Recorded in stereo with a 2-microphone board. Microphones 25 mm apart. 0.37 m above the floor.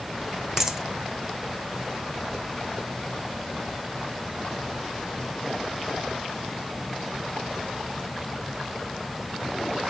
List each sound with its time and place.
0.6 s a dropped coin: 20° right (ahead or behind), 2 m